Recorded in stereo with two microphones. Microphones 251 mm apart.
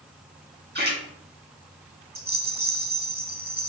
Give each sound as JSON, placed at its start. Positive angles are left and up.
{"t": 0.8, "sound": "a splash", "side_deg": -45, "distance_m": 1.7}
{"t": 2.1, "sound": "a rattle", "side_deg": -35, "distance_m": 0.8}